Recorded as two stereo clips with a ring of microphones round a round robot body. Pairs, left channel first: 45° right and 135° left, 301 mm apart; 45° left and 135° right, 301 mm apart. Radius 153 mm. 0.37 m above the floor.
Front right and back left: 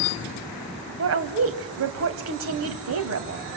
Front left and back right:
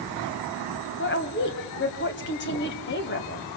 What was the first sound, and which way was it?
A woman speaking, 95° left.